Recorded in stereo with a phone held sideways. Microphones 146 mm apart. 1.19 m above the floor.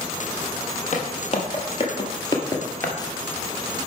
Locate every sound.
0.9 s footsteps: 55° left (ahead or behind), 1.9 m; by 3.0 s 15° left (ahead or behind), 1.3 m